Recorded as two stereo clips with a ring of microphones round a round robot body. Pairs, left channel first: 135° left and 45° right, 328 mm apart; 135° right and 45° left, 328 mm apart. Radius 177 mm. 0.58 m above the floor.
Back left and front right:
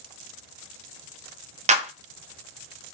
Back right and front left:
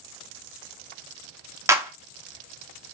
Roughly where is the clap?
Ahead right.